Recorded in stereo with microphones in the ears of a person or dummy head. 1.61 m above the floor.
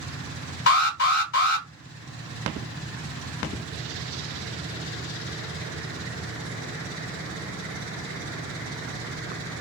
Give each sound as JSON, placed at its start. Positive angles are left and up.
{"t": 0.7, "sound": "an alarm", "side_deg": 65, "distance_m": 1.4}